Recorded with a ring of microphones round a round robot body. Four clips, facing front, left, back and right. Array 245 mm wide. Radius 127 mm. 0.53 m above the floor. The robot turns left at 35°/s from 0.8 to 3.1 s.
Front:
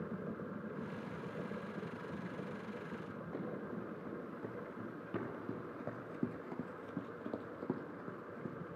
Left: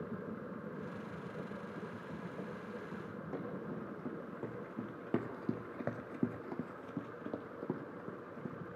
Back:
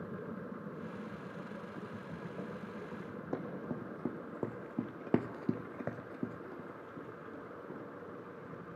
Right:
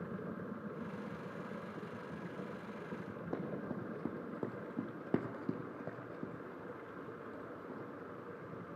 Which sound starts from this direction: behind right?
Running footsteps, at 3.3 s.